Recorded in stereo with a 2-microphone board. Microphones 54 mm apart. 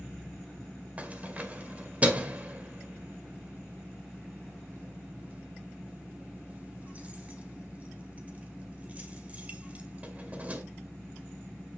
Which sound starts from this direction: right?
Keys jangling, at 1.0 s.